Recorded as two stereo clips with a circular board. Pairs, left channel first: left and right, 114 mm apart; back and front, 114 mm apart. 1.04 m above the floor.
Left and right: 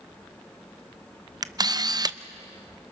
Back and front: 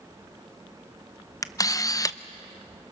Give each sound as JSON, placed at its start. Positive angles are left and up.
{"t": 1.4, "sound": "a camera shutter", "azimuth_deg": -130, "distance_m": 0.5}